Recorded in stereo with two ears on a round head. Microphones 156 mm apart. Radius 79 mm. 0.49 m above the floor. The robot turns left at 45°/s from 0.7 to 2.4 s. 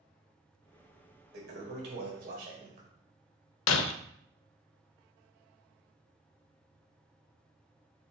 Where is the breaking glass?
80° left, 0.5 m.